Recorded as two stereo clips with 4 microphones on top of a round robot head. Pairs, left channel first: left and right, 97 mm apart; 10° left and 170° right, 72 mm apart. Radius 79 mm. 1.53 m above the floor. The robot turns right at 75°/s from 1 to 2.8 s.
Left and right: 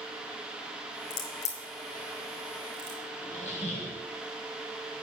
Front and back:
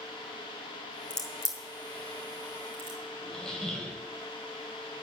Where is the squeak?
90° left, 3 m.